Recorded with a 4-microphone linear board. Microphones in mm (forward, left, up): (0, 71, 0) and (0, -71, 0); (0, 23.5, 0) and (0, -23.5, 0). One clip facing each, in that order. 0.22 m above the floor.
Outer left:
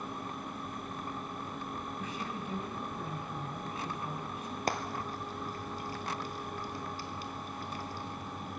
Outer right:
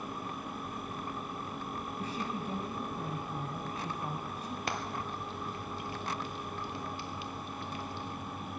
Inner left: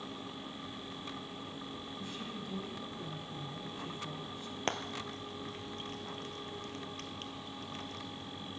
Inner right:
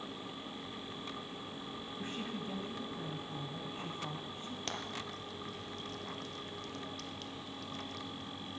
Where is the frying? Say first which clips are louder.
Outer left 4 dB, inner left 6 dB; 40° left (ahead or behind), 1.1 m.